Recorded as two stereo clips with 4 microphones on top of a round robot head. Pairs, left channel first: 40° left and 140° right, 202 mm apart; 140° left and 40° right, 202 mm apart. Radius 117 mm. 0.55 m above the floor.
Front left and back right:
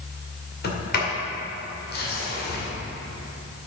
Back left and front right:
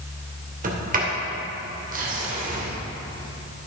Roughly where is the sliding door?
Ahead.